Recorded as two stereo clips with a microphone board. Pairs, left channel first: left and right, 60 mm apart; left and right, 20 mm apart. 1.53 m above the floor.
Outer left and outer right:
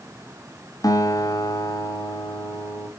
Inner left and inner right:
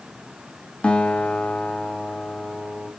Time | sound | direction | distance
0.8 | a guitar | 75° left (ahead or behind) | 2.5 m